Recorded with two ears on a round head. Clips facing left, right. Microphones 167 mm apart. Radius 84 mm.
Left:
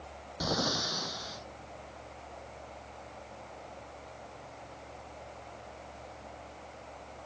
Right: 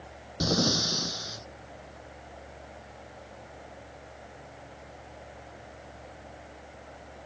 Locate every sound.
0.4 s breathing: 30° right (ahead or behind)